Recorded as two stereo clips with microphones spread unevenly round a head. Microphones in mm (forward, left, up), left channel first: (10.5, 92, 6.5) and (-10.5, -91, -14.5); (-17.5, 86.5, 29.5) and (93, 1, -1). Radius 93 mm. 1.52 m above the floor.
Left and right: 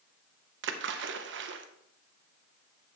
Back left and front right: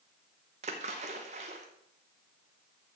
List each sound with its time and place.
0.6 s a splash: 95° right, 0.8 m